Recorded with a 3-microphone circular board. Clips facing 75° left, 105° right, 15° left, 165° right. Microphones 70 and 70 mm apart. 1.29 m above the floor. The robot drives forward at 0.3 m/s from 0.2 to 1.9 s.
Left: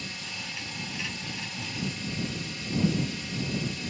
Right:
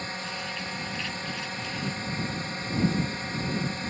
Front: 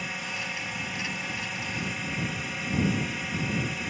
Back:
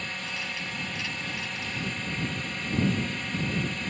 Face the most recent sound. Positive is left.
turn(degrees=-70)